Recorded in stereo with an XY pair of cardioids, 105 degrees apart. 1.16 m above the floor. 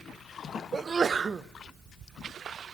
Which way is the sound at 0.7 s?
35° right.